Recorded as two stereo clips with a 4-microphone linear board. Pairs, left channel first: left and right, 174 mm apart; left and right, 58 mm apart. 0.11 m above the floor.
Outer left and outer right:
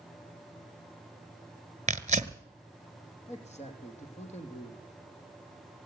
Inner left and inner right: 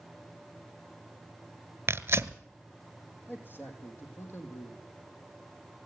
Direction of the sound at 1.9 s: 45° right (ahead or behind).